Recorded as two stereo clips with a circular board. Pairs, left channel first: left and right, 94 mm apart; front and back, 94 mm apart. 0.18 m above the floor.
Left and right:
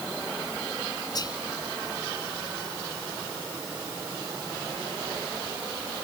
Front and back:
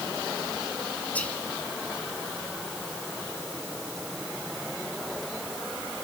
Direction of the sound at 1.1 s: 70° left.